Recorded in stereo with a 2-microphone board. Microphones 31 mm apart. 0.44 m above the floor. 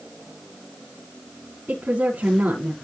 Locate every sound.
1.7 s a woman speaking: 75° right (ahead or behind), 4 m